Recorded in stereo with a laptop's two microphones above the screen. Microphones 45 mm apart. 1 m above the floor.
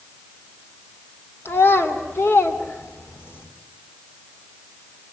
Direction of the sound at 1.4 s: 65° left (ahead or behind).